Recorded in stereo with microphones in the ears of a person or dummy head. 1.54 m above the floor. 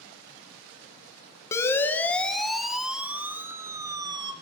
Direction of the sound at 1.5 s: 10° left (ahead or behind).